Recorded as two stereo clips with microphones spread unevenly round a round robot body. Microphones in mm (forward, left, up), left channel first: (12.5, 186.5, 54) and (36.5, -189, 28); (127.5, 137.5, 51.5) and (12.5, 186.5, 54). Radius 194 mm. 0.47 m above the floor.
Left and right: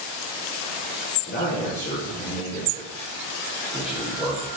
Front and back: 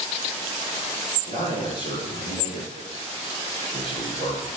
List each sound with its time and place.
1.3 s a man speaking: 160° left, 6.5 m; by 4.5 s 170° right, 6.5 m